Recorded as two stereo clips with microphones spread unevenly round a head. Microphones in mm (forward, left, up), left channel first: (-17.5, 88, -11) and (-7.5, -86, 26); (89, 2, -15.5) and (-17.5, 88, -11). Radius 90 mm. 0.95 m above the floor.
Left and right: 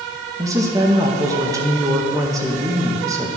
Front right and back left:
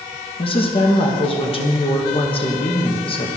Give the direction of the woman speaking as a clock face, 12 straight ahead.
12 o'clock.